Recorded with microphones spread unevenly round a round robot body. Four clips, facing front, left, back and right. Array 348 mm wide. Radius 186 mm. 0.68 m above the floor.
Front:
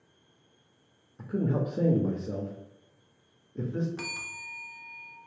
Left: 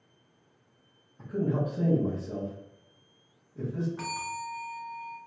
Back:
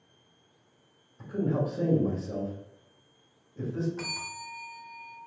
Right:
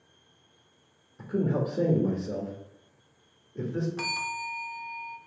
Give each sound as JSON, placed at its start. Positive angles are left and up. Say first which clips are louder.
{"t": 1.2, "sound": "a man speaking", "louder": "right 2 dB, even", "azimuth_deg": -35, "distance_m": 1.2}
{"t": 4.0, "sound": "a bell", "louder": "right 1 dB, back 2 dB", "azimuth_deg": -30, "distance_m": 1.0}